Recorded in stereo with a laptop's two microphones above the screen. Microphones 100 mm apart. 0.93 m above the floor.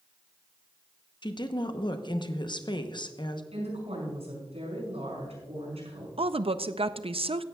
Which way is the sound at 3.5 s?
80° right.